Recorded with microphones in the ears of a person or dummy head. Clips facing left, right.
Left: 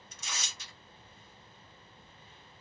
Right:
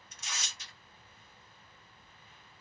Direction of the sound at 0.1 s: 75° left (ahead or behind).